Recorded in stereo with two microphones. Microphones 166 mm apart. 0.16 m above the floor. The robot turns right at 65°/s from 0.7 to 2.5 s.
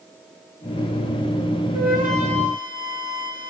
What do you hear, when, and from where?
1.7 s a flute: 80° right, 6 m; by 3.5 s 30° right, 6 m